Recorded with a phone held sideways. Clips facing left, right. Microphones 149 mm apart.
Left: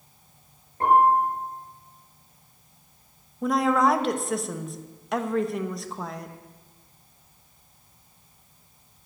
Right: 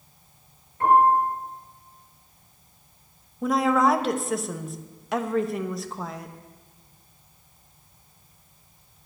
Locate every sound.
0.8 s a piano: 35° left (ahead or behind), 6.5 m
3.4 s a woman speaking: centre (ahead or behind), 1.1 m